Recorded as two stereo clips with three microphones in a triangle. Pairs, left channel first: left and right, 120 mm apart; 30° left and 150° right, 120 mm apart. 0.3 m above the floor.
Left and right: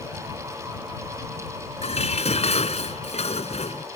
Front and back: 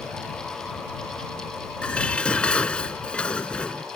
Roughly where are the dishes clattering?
Left.